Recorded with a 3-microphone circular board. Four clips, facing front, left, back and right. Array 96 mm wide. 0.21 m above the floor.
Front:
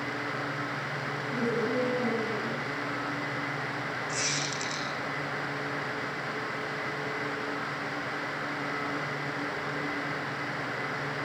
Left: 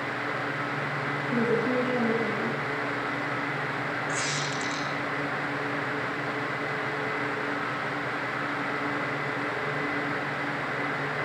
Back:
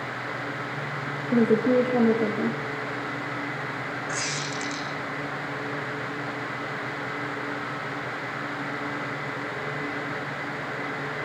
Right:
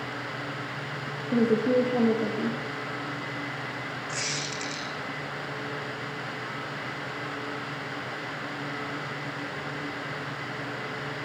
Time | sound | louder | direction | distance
1.3 | a woman speaking | right 4 dB, back 10 dB | 165° right | 6.5 m
4.1 | a squeak | left 4 dB, back 2 dB | 145° left | 6 m